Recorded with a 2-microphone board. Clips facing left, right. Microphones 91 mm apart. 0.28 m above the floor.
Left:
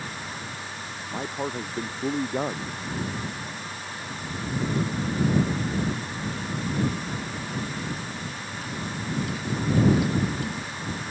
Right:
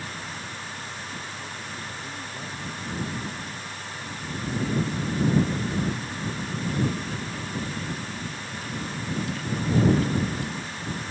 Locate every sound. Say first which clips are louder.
1.1 s a man speaking: left 7 dB; 60° left (ahead or behind)